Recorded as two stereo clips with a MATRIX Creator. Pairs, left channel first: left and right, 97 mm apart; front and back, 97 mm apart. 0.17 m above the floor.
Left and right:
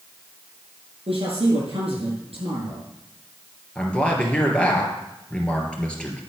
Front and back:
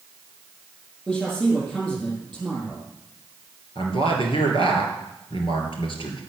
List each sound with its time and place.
1.1 s a man speaking: 75° right, 7 m
3.8 s a man speaking: 15° left, 3 m